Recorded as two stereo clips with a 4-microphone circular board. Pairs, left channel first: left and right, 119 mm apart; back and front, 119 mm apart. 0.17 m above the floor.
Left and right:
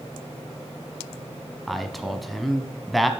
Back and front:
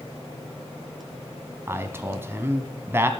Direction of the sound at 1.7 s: Straight ahead.